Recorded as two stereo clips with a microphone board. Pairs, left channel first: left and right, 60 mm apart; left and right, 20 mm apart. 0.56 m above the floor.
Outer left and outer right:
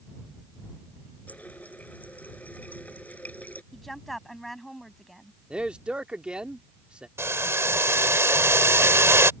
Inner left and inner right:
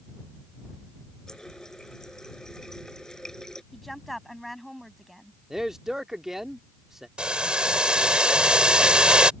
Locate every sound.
1.3 s a running tap: 25° left (ahead or behind)
3.7 s a woman speaking: 5° left (ahead or behind)
5.5 s a man speaking: 20° right (ahead or behind)
7.2 s boiling: 50° right (ahead or behind)